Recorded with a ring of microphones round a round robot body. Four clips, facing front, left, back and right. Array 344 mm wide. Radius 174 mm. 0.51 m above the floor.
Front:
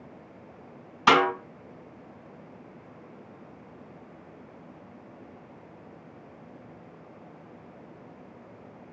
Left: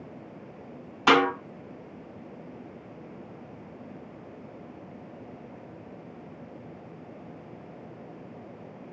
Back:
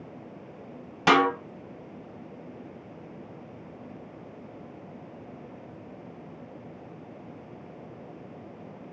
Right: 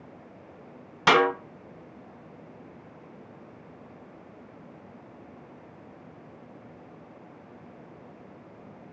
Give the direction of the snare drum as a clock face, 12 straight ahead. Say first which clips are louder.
Even, even; 5 o'clock.